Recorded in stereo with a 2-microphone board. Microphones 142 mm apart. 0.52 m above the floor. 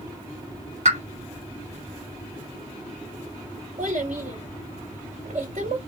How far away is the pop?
About 1.9 m.